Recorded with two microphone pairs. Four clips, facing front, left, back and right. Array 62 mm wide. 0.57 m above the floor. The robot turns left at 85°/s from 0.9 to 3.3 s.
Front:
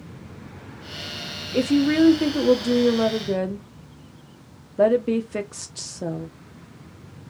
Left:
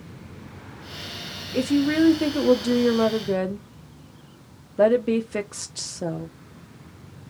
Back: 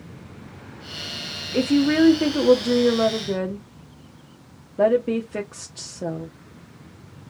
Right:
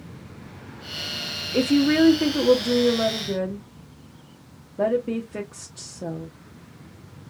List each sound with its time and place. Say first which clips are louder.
1.5 s a woman speaking: right 2 dB, even; 110° right, 0.6 m; by 6.3 s 105° left, 0.6 m